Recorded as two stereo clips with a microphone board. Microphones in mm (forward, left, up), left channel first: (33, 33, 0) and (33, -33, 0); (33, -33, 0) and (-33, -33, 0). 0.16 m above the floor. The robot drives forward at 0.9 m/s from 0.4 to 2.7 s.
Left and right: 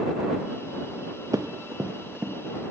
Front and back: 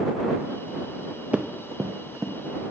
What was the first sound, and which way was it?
Running footsteps, 110° right.